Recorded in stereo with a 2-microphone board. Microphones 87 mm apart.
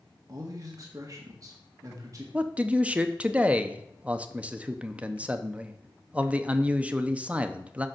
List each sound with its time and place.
0.3 s a man speaking: 40° right (ahead or behind), 1.5 m
2.3 s a man speaking: 15° right (ahead or behind), 0.7 m